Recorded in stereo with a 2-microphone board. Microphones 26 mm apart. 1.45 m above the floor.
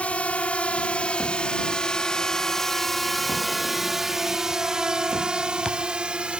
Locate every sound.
0.0 s a drone: 55° left (ahead or behind); by 6.4 s 45° right (ahead or behind)